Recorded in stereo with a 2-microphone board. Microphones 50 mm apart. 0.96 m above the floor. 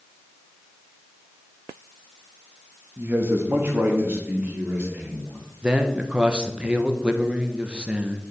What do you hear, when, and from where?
3.0 s a man speaking: 55° right (ahead or behind), 1.0 m; by 5.4 s 50° right (ahead or behind), 2.5 m
5.6 s a man speaking: 20° right (ahead or behind), 0.7 m